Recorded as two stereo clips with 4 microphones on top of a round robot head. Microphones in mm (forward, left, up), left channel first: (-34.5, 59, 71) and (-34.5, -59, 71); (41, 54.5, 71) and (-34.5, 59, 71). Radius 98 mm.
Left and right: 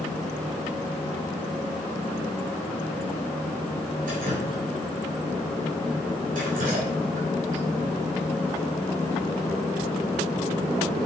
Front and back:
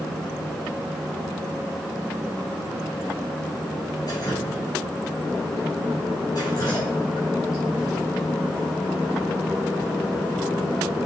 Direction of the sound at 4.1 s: 65° right.